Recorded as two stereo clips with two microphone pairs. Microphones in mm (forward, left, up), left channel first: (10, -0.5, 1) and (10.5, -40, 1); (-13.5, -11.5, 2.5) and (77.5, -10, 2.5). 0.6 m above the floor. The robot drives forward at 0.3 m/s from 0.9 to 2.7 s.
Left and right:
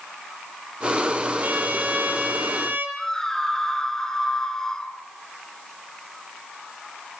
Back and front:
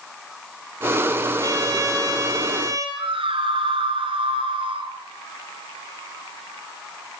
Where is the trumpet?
45° right, 5.5 m; by 2.9 s 50° right, 5.5 m.